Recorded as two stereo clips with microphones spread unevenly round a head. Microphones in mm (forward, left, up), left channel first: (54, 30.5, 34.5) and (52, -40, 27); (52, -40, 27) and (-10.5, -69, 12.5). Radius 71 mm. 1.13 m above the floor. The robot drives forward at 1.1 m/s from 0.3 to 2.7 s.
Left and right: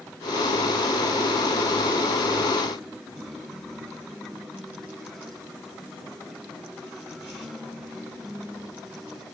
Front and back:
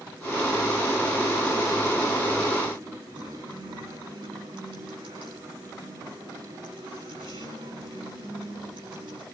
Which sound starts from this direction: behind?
A guitar, at 3.1 s.